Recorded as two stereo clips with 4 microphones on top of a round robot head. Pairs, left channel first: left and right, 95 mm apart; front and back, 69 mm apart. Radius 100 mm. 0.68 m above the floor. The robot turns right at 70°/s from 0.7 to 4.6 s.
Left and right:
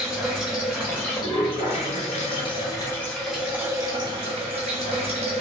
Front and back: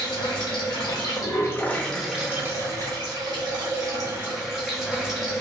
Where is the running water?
Straight ahead, 1.1 m; by 5.4 s 85° right, 1.1 m.